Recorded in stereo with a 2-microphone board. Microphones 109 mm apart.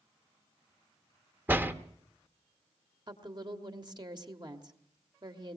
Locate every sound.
1.5 s a door slam: 20° right (ahead or behind), 0.7 m
3.1 s a woman speaking: 45° right (ahead or behind), 1.5 m